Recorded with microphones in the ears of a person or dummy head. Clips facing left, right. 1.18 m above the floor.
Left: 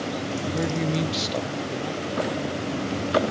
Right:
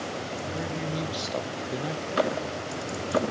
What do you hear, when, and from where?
0.5 s a man speaking: 55° left (ahead or behind), 0.7 m; by 3.2 s 30° right (ahead or behind), 1.5 m